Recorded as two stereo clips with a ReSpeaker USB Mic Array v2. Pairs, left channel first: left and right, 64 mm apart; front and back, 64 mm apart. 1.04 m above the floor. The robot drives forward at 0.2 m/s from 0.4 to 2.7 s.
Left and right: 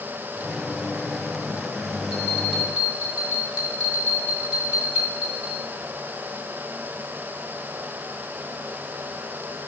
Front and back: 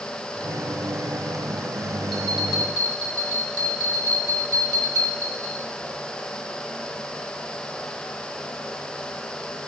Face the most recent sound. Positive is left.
turn(degrees=-165)